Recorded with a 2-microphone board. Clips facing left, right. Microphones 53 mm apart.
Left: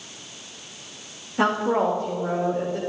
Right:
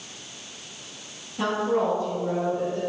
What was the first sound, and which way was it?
A woman speaking, 60° left (ahead or behind).